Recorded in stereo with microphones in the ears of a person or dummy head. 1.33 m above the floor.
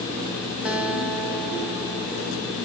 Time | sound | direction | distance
0.7 | a guitar | 5° right (ahead or behind) | 1.5 m